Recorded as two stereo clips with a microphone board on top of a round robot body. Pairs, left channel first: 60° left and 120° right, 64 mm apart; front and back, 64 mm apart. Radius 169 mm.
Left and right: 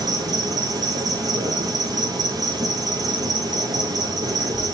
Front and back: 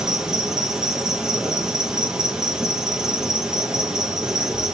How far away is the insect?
About 1.3 m.